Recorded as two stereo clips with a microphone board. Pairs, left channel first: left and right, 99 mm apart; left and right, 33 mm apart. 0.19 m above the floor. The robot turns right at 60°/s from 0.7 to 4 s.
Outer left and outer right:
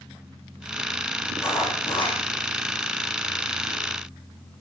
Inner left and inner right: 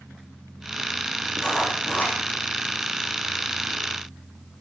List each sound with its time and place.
1.4 s writing: 20° left, 8.5 m; by 2.2 s 70° left, 8.5 m